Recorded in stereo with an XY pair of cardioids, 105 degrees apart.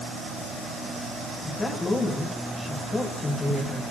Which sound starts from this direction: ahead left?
A woman speaking, at 1.4 s.